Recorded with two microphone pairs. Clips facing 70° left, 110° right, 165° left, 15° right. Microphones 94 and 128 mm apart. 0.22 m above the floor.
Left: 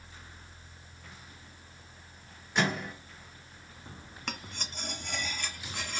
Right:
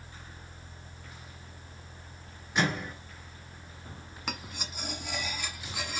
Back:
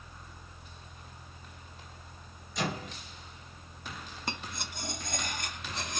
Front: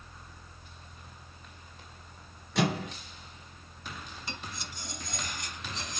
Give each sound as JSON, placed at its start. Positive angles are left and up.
{"t": 2.5, "sound": "a microwave", "azimuth_deg": -25, "distance_m": 2.0}
{"t": 4.3, "sound": "cutlery clinking", "azimuth_deg": 160, "distance_m": 1.2}